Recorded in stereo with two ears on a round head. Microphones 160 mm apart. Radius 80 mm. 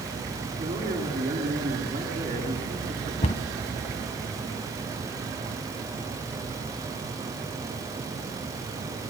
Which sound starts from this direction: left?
A cupboard door, at 3.2 s.